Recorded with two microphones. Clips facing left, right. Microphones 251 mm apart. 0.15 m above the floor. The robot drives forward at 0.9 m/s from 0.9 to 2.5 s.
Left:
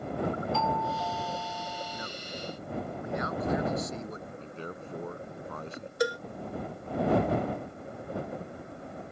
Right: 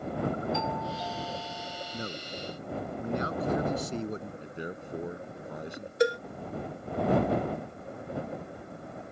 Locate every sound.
0.5 s a doorbell: 15° right (ahead or behind); by 2.1 s 20° right (ahead or behind)
1.9 s a man speaking: 35° right (ahead or behind)
4.4 s a man speaking: 15° right (ahead or behind)
6.0 s a cowbell: 25° right (ahead or behind)